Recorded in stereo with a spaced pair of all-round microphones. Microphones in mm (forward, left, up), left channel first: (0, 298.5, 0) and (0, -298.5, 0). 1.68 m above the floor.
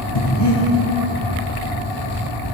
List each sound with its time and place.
0.1 s breathing: 45° left (ahead or behind), 1.0 m